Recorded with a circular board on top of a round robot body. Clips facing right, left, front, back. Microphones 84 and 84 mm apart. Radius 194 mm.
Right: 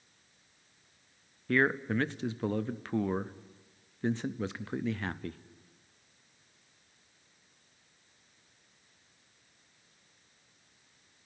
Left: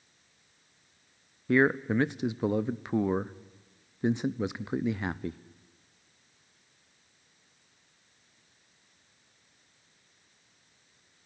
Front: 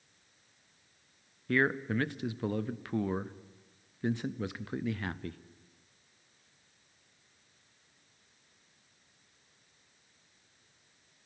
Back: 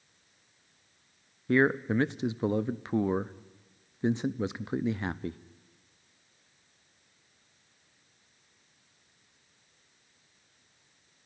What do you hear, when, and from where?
1.5 s a man speaking: 145° left, 0.8 m